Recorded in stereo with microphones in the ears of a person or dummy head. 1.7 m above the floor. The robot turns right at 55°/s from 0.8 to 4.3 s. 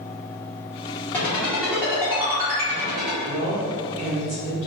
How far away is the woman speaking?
About 1.4 m.